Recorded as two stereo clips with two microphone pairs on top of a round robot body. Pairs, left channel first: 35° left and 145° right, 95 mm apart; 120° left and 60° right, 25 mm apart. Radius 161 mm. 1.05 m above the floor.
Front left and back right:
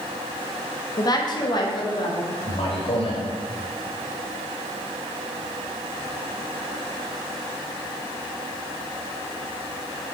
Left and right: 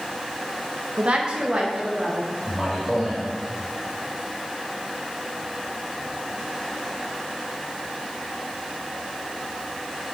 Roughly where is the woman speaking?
Ahead.